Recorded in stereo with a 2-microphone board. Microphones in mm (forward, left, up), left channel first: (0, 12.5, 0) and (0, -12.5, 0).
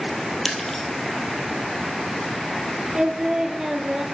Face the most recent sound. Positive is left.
turn(degrees=-25)  # may be behind; listen again after turning